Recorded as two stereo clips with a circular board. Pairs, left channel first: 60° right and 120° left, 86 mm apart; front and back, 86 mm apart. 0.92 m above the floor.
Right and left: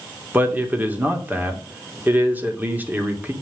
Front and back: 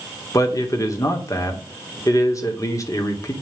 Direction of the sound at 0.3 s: 50° left.